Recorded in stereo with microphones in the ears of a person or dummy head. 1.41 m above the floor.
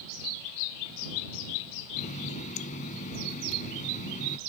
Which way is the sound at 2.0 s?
40° left (ahead or behind).